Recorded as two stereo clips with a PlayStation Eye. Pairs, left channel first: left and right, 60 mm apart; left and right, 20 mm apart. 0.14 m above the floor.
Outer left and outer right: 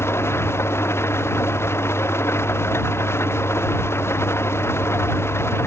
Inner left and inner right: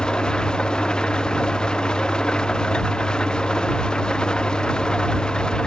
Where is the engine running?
45° left (ahead or behind).